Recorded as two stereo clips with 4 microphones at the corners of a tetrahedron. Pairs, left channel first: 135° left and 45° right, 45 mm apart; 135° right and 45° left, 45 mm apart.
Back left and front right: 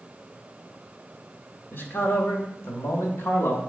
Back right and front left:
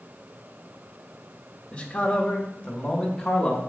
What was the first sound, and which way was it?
A man speaking, 160° left.